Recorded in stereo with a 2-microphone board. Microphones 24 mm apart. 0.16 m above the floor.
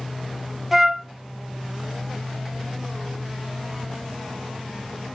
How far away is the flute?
About 0.6 m.